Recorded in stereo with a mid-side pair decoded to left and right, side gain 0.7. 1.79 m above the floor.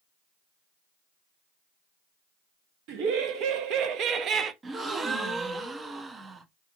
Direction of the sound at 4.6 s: 25° right.